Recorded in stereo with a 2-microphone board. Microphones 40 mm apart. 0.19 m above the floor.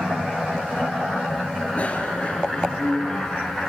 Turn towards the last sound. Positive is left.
turn(degrees=15)  # may be behind; listen again after turning